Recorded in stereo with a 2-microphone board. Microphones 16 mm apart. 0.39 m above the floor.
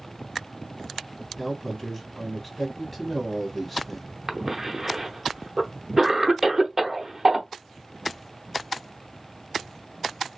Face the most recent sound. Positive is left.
turn(degrees=-15)  # may be behind; listen again after turning